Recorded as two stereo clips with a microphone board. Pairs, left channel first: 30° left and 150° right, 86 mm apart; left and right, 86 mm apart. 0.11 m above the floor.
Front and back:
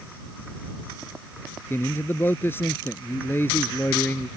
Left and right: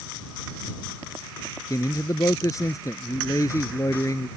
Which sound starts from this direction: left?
A man speaking, at 1.7 s.